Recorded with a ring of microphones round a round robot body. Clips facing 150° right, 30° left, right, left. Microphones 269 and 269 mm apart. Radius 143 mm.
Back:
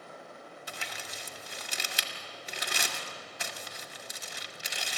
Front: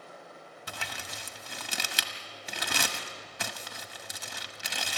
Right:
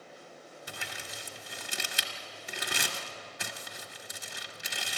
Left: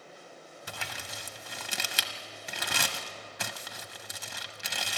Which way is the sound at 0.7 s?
60° left.